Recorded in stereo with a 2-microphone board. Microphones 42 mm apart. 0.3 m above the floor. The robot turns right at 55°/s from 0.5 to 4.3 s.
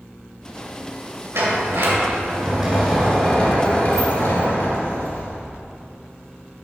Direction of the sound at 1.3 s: 75° right.